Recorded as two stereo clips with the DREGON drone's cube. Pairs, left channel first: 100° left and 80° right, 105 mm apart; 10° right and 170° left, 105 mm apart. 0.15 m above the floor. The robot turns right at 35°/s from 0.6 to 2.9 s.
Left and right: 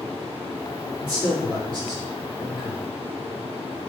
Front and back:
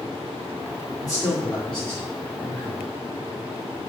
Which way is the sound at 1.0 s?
100° right.